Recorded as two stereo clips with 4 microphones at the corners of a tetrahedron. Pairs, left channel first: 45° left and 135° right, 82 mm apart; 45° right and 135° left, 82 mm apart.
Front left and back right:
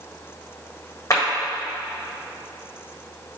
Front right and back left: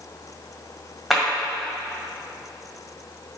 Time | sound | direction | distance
1.1 | a clap | 45° left | 1.6 m